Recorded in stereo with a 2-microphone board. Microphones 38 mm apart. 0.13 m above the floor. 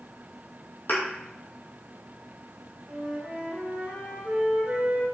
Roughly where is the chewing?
No chewing in this recording.